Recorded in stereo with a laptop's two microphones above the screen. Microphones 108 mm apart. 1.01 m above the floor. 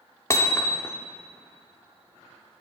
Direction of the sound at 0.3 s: 25° left (ahead or behind).